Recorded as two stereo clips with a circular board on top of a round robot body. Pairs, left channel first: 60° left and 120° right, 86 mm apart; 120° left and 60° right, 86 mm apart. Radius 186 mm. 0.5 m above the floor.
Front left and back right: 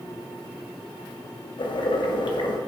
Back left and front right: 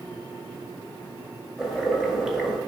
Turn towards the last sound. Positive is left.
turn(degrees=25)